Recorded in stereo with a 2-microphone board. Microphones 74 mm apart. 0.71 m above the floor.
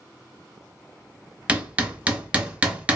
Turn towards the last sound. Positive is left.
turn(degrees=-20)  # may be behind; listen again after turning